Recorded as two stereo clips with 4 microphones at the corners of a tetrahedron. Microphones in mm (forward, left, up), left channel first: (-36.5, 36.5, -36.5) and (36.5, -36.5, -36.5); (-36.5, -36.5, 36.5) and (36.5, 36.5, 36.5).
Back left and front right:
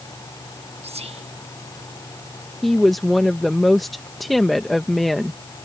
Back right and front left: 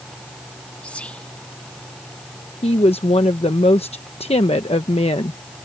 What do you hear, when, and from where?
0.8 s whispering: 55° right
2.6 s a woman speaking: 135° right